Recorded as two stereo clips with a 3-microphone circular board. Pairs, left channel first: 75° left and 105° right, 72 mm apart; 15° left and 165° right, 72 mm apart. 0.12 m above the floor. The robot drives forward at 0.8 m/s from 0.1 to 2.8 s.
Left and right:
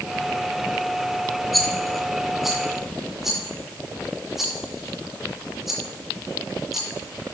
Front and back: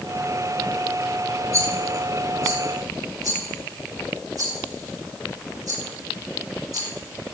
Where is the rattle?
165° left, 2.5 m; by 7.3 s 170° left, 3 m.